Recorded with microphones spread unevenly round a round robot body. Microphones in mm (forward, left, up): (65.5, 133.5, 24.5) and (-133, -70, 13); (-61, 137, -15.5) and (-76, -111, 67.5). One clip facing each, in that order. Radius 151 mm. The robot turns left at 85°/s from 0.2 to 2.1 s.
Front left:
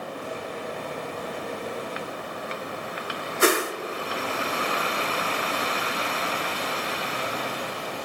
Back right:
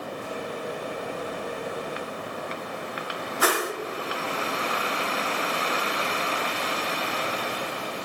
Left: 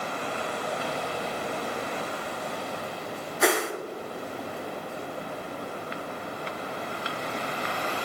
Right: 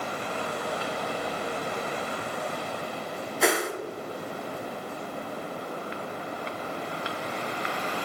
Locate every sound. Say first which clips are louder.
3.4 s a whoosh: front left 4 dB, left 1 dB; 45° left, 0.8 m